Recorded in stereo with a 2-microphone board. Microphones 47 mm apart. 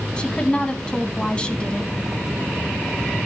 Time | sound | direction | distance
0.2 | a woman speaking | 20° left (ahead or behind) | 2.0 m